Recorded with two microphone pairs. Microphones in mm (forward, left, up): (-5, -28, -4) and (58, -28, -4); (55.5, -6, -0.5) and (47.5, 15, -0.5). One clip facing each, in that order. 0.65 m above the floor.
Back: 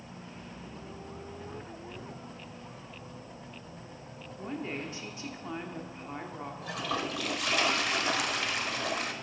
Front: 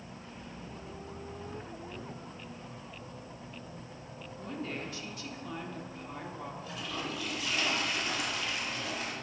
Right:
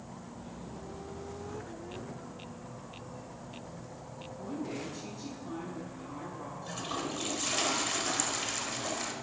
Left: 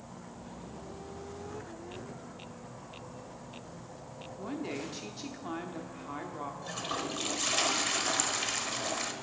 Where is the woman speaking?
120° left, 1.1 m.